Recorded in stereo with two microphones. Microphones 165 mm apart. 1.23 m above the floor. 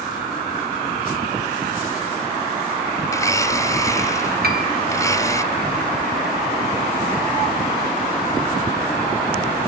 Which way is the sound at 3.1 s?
20° left (ahead or behind).